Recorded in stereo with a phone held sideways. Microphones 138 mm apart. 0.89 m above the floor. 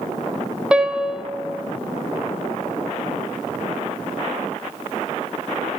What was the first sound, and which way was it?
A piano, 5° right (ahead or behind).